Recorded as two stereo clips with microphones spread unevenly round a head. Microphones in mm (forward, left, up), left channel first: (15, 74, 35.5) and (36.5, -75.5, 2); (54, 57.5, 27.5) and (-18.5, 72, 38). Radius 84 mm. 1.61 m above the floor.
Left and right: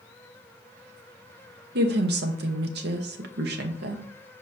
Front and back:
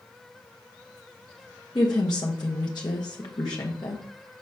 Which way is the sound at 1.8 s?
65° right.